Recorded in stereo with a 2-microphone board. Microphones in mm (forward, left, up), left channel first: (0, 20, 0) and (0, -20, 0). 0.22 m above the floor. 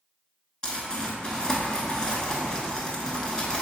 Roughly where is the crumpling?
Left.